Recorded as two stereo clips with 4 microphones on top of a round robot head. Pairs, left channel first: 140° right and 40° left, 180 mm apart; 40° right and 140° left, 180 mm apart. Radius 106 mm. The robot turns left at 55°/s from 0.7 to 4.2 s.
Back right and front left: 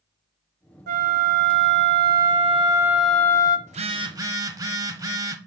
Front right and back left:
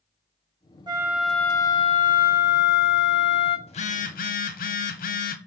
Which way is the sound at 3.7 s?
5° left.